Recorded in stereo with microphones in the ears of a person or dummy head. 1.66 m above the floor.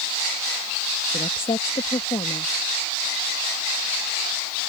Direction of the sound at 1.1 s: 25° left (ahead or behind).